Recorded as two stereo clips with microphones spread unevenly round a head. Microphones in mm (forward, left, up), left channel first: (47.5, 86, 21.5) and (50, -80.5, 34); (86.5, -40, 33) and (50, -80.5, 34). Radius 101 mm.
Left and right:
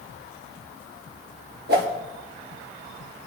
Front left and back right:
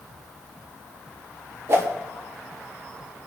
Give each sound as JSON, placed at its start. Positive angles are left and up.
{"t": 1.7, "sound": "a whoosh", "azimuth_deg": -110, "distance_m": 1.7}